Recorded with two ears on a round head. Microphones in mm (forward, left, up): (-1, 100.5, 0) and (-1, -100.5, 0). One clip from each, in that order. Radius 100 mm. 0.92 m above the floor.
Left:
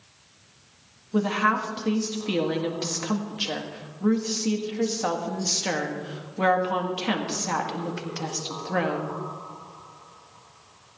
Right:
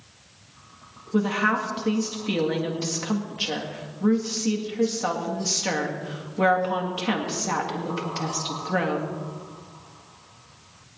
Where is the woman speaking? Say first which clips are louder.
Even; 5° left (ahead or behind), 1.6 m.